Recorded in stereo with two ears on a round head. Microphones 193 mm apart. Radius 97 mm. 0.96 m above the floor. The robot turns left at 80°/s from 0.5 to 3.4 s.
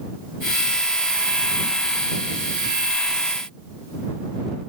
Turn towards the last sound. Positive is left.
No sound to turn to.